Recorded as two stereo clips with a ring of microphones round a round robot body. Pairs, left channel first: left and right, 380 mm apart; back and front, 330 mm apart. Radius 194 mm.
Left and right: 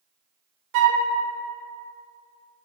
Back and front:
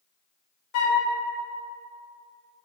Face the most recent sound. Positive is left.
turn(degrees=-135)